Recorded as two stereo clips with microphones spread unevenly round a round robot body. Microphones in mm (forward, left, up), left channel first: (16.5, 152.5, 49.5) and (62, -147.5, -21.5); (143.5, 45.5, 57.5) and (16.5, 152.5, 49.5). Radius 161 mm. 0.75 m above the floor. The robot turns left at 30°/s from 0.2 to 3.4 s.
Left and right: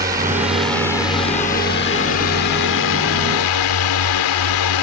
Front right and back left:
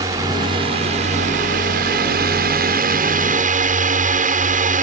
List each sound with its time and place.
0.0 s a drone: 150° right; by 4.8 s 115° left